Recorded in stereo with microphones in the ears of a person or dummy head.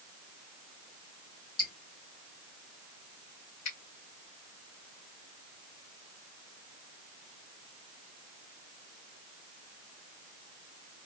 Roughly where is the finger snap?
Left.